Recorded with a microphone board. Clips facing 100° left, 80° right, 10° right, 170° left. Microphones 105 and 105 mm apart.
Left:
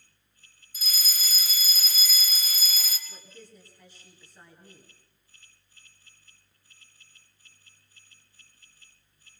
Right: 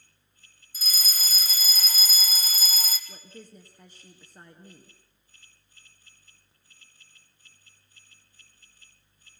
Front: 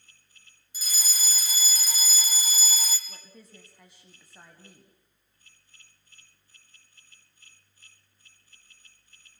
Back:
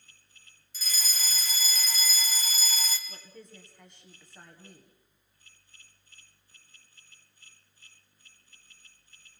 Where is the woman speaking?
95° right, 2 m.